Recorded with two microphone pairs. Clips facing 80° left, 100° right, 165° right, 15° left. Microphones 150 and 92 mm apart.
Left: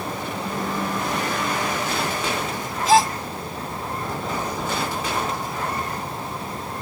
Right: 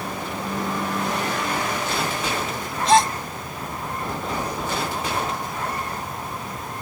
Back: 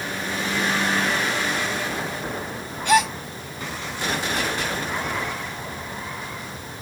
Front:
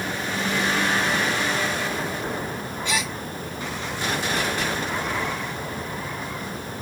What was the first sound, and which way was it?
A gasp, 170° left.